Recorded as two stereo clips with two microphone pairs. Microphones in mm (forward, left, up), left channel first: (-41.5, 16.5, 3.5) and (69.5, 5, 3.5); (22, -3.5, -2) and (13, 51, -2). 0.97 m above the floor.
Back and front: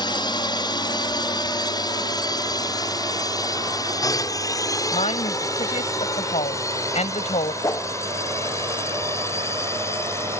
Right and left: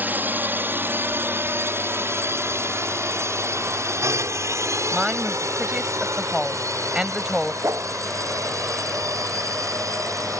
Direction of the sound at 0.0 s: 145° left.